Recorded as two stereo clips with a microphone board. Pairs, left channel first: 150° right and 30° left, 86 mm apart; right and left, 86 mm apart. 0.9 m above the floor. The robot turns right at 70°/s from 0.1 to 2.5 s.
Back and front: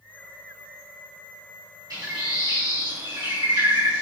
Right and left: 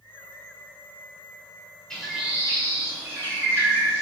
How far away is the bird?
About 1.6 m.